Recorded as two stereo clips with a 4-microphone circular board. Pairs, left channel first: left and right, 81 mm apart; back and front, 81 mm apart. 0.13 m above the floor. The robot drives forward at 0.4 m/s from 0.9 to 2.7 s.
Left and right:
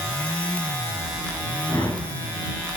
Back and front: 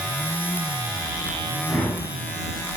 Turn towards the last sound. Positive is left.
turn(degrees=120)